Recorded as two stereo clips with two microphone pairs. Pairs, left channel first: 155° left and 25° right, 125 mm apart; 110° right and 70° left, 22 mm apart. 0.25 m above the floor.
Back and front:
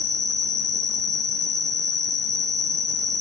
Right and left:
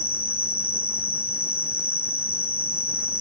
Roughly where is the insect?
Left.